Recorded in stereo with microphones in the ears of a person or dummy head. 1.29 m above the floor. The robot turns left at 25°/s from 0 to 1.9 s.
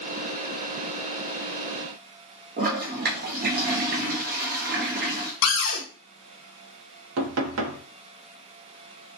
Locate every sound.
2.6 s a toilet flushing: 45° right (ahead or behind), 0.5 m
5.4 s a cupboard door: 75° left (ahead or behind), 0.9 m
7.2 s knocking: 75° right (ahead or behind), 0.6 m